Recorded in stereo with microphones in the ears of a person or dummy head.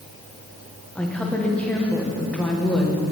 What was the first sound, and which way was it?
A woman speaking, 10° left (ahead or behind).